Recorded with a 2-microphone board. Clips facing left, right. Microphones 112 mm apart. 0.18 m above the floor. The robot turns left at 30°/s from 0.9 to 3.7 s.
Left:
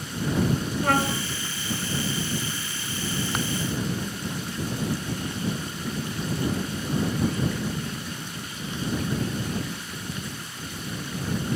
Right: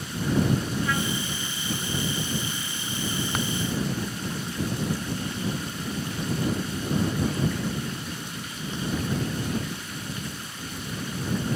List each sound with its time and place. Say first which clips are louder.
0.8 s a trumpet: left 4 dB; 55° left (ahead or behind); by 1.2 s 65° left (ahead or behind)